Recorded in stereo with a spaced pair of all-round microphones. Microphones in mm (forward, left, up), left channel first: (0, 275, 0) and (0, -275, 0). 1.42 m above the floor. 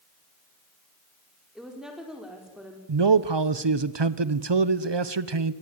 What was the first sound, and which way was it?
A woman speaking, centre (ahead or behind).